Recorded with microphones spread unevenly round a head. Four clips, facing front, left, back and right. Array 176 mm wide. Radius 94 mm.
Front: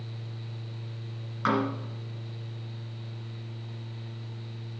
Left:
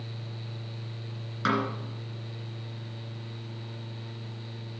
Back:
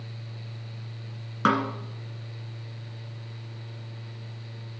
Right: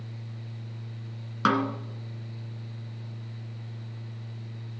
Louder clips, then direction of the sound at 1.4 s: Right 3 dB, back 3 dB; 140° right.